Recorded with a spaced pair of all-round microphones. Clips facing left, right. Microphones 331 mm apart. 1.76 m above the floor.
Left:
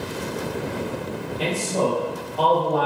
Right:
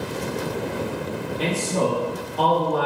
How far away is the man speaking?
About 1.3 m.